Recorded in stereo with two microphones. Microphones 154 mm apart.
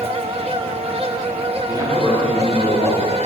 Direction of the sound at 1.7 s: 30° right (ahead or behind).